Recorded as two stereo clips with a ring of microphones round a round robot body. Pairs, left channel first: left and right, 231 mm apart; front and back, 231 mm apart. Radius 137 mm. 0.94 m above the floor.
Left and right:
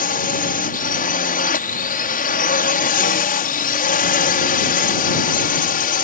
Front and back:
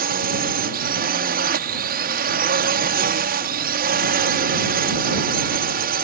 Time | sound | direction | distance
0.0 | a drone | 135° left | ?